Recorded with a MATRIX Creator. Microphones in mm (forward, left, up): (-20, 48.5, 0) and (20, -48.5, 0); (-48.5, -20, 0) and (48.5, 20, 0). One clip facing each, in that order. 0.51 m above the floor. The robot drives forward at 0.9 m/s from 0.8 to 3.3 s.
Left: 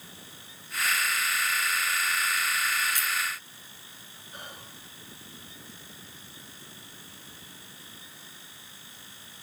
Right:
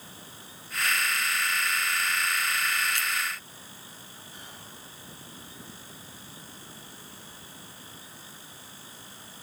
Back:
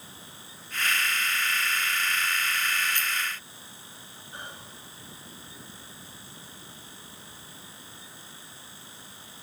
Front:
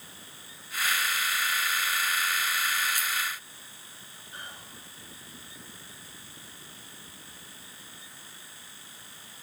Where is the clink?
55° right, 1.3 m; by 3.1 s 65° right, 1.2 m.